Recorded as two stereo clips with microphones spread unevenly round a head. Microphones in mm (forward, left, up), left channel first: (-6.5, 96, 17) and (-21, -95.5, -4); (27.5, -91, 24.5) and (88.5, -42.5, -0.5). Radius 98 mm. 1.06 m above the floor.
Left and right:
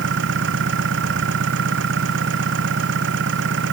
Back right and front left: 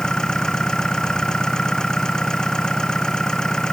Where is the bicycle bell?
No bicycle bell in this recording.